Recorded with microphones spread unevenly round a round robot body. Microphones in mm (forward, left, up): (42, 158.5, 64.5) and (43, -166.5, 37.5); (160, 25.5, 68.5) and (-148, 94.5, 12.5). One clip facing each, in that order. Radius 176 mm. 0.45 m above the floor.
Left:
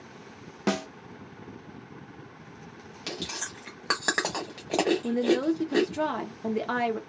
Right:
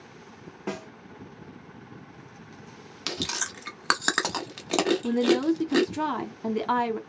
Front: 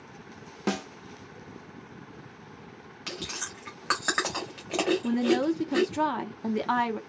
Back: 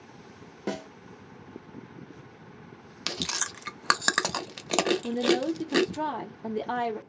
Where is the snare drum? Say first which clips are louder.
Left 6 dB, front 3 dB; 60° left, 0.5 m.